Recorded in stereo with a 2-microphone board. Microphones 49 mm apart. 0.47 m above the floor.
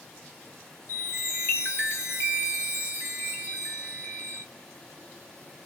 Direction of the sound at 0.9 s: 55° left (ahead or behind).